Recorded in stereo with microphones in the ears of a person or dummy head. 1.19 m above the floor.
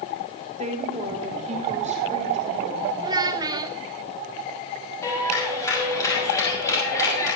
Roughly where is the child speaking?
Centre.